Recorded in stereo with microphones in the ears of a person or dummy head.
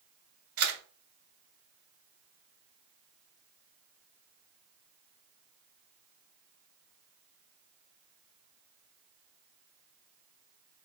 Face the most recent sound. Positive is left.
turn(degrees=-55)  # may be behind; listen again after turning